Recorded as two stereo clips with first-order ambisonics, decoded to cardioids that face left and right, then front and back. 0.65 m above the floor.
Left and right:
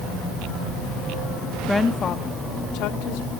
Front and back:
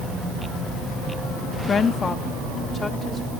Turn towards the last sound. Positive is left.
turn(degrees=85)